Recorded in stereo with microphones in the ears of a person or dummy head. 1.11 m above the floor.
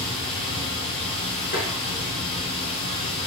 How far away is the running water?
About 1.3 m.